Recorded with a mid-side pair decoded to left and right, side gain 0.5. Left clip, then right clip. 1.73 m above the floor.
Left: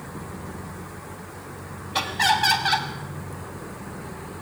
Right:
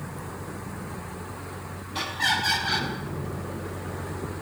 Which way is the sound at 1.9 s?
65° left.